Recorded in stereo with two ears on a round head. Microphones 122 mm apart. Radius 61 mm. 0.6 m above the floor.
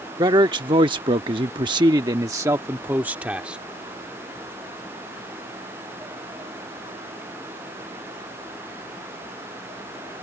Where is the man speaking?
30° right (ahead or behind); by 3.6 s 10° right (ahead or behind).